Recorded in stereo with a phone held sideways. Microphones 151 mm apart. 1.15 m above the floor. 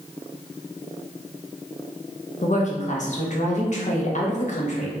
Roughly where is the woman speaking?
Left.